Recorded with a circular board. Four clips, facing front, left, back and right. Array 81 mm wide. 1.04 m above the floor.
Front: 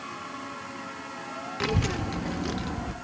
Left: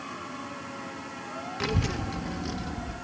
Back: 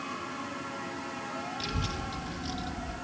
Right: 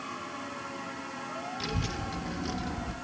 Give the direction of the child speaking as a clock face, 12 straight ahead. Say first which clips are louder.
Left 8 dB, front 7 dB; 11 o'clock.